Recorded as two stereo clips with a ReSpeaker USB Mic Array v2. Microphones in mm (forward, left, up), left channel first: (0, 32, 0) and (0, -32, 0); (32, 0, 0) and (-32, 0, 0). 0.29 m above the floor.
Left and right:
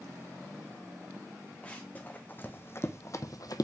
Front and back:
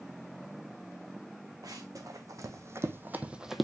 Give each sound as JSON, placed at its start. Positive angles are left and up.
{"t": 1.6, "sound": "running footsteps", "azimuth_deg": 160, "distance_m": 1.4}